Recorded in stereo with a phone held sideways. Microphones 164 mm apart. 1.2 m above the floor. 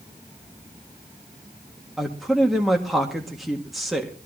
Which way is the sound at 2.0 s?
Centre (ahead or behind).